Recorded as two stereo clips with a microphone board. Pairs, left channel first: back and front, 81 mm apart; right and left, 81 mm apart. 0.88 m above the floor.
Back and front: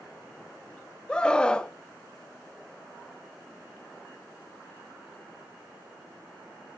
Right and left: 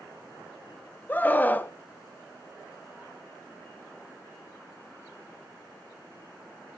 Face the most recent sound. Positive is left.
turn(degrees=-120)